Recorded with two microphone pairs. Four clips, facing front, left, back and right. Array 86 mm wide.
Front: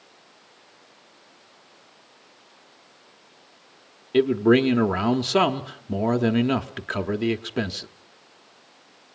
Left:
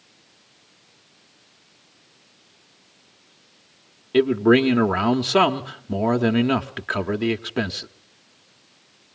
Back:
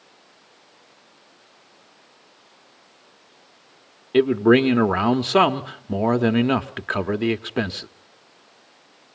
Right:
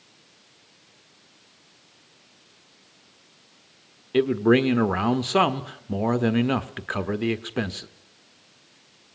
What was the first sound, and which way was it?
A man speaking, 155° left.